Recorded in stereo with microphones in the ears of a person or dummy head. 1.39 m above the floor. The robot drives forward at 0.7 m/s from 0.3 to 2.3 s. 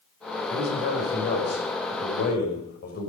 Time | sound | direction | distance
0.5 | a man speaking | 70° left (ahead or behind) | 5.5 m